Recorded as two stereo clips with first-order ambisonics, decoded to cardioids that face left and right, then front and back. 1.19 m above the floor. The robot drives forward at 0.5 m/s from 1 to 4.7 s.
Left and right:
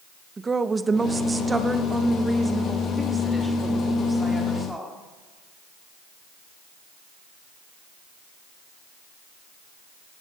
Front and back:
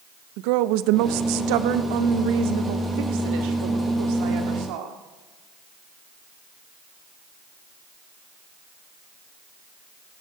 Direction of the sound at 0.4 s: 165° right.